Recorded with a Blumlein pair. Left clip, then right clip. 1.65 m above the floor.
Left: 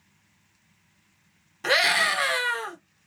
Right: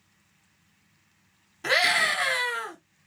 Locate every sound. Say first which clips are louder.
1.6 s a scream: left 1 dB; 10° left, 1.0 m